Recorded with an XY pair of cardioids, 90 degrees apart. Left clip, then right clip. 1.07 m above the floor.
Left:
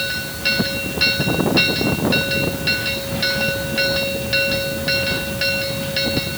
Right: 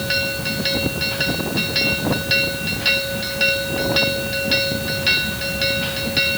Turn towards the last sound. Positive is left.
No sound to turn to.